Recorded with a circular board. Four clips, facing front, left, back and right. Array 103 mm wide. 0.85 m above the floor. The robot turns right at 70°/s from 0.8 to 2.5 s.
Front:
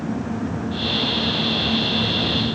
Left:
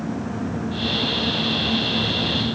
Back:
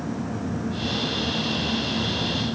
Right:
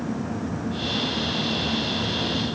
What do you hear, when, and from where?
Only background noise.